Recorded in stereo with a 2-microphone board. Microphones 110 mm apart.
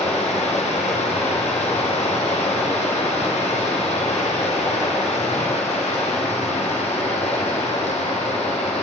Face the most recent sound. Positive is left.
turn(degrees=85)